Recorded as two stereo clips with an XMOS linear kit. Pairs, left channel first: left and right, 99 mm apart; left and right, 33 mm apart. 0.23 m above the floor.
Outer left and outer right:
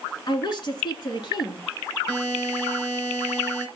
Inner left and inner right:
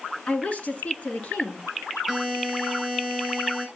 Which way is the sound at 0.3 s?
45° left (ahead or behind).